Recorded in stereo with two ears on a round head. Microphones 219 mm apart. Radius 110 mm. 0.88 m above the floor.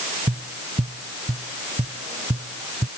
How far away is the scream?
I don't hear a scream.